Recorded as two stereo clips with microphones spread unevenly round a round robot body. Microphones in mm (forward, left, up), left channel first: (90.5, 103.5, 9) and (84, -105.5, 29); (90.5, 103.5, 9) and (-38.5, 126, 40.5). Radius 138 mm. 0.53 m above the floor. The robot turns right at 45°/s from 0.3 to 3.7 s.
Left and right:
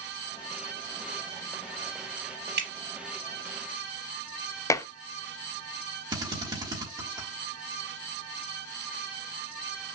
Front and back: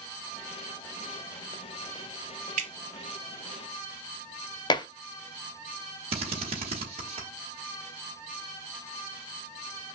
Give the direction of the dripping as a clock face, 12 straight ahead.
5 o'clock.